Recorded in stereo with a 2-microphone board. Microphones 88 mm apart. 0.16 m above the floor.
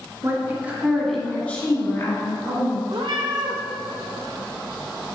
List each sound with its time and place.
0.2 s a woman speaking: 30° right (ahead or behind), 2.0 m; by 2.8 s 55° left (ahead or behind), 2.5 m
2.9 s a cat meowing: 65° right (ahead or behind), 1.8 m